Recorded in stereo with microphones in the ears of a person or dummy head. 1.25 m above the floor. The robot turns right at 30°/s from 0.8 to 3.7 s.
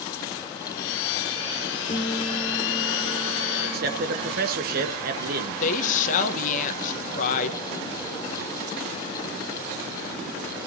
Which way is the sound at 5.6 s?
45° left (ahead or behind).